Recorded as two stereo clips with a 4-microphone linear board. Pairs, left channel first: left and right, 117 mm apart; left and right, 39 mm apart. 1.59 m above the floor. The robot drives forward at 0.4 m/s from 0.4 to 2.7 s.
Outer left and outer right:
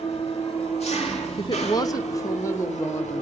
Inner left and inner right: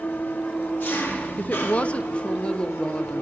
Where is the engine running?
60° left (ahead or behind), 2.5 m; by 3.2 s 75° left (ahead or behind), 2.5 m.